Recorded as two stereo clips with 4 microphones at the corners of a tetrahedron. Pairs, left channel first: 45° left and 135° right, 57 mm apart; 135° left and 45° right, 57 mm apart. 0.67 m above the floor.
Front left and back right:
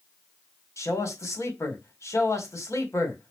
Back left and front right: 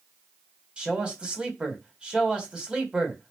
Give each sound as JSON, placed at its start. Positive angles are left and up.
{"t": 0.8, "sound": "a man speaking", "azimuth_deg": 25, "distance_m": 2.0}